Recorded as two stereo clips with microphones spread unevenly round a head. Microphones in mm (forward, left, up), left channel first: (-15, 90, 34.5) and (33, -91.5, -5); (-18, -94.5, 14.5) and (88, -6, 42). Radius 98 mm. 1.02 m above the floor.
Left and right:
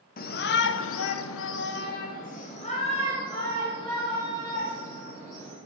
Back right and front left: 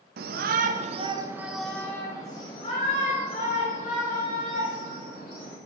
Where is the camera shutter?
No camera shutter in this recording.